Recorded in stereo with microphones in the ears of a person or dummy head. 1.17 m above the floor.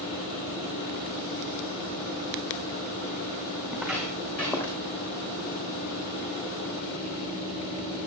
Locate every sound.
3.7 s footsteps: centre (ahead or behind), 4.5 m; by 4.8 s 15° left (ahead or behind), 3.5 m